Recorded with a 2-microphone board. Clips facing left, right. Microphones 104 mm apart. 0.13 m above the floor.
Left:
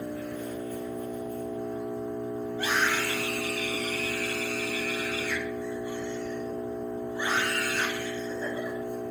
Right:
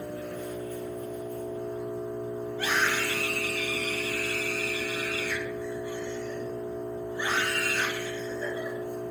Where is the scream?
15° left (ahead or behind), 1.2 m.